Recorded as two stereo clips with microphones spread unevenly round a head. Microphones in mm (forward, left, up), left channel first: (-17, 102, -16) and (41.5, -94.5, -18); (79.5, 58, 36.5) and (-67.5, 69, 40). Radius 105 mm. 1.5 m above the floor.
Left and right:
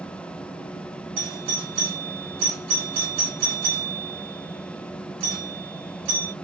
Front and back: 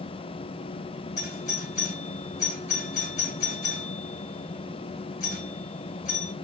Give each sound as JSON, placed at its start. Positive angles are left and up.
{"t": 1.2, "sound": "a doorbell", "azimuth_deg": -60, "distance_m": 1.8}